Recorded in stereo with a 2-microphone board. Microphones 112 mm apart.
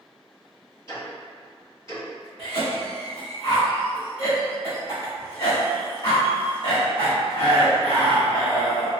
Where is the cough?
50° left (ahead or behind), 1.3 m.